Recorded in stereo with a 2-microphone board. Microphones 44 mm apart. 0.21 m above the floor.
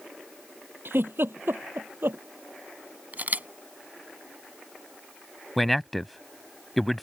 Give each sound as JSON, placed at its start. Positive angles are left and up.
{"t": 0.8, "sound": "a giggle", "side_deg": -65}
{"t": 3.1, "sound": "a camera shutter", "side_deg": -50}
{"t": 5.6, "sound": "a man speaking", "side_deg": 5}